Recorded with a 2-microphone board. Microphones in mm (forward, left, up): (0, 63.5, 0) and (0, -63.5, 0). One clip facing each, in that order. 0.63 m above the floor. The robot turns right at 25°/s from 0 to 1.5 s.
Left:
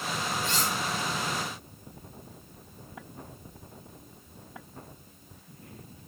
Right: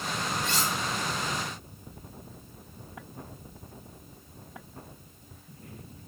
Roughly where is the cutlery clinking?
Right.